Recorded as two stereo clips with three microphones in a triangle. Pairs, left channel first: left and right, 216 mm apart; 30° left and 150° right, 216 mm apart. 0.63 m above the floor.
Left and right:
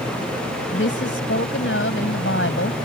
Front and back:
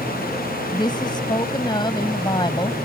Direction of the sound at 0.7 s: 100° left.